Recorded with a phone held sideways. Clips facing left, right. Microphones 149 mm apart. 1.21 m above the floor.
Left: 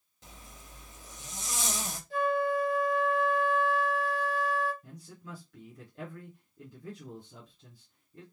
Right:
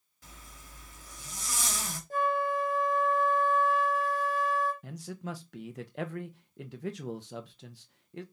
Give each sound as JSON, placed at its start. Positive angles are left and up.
{"t": 0.2, "sound": "a zipper", "side_deg": 20, "distance_m": 1.1}
{"t": 2.1, "sound": "a flute", "side_deg": -45, "distance_m": 1.1}
{"t": 4.8, "sound": "a man speaking", "side_deg": -75, "distance_m": 0.7}